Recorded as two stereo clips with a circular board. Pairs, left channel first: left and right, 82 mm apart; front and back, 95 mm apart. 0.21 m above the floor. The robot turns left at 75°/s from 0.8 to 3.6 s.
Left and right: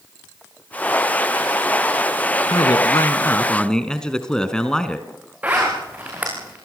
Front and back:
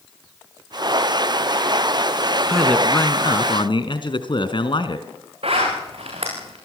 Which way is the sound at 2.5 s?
95° left.